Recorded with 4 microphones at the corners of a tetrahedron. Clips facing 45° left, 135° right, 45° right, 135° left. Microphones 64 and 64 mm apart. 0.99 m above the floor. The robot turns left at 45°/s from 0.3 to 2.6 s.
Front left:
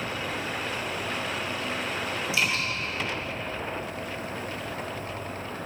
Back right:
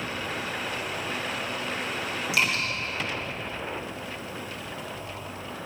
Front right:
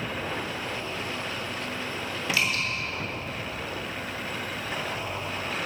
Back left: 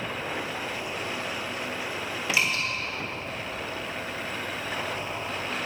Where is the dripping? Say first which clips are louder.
Back right 2 dB, back left 1 dB; 155° right, 3.5 m; by 2.6 s 165° right, 3.5 m.